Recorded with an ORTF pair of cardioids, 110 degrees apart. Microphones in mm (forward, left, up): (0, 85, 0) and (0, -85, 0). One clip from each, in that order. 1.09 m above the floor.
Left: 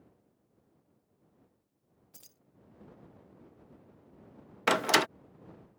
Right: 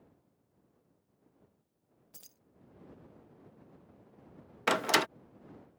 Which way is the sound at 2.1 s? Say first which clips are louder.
Right 1 dB; 5° right.